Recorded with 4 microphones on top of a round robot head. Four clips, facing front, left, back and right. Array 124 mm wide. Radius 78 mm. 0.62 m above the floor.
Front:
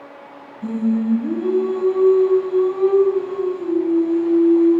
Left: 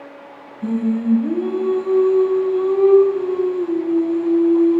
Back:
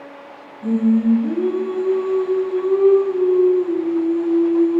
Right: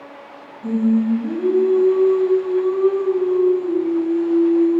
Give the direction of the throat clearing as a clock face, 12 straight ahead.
I don't hear throat clearing.